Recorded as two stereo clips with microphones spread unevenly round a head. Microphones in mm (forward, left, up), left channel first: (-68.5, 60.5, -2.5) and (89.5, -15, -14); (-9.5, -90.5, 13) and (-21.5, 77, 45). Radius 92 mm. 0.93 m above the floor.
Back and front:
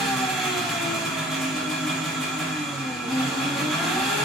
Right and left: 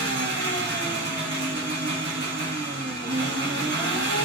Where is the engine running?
60° left, 1.1 m.